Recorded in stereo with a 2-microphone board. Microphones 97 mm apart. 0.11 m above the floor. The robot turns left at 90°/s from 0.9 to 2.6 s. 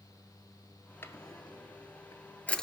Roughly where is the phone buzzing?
No phone buzzing in this recording.